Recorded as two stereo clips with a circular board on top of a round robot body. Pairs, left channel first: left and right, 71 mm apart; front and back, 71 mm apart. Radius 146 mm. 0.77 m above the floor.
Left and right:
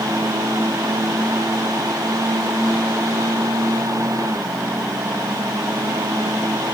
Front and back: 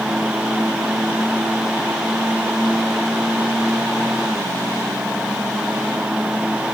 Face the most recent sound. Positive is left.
No sound to turn to.